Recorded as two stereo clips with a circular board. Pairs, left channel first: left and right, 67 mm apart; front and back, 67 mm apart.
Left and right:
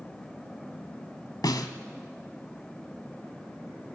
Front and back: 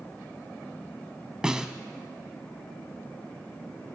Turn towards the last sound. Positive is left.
turn(degrees=100)